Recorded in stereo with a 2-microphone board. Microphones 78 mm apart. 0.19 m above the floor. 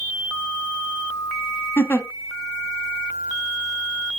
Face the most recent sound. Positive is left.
turn(degrees=30)  # may be behind; listen again after turning